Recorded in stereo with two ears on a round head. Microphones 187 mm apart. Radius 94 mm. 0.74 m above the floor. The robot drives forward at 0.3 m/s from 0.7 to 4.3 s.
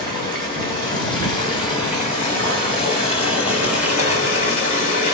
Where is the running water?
25° left (ahead or behind), 2.5 m; by 5.1 s 40° left (ahead or behind), 1.8 m.